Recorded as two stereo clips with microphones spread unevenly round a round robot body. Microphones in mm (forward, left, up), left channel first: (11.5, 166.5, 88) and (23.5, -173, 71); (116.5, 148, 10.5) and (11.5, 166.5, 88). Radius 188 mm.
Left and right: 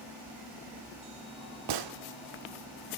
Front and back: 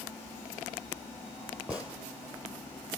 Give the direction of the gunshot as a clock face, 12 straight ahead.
4 o'clock.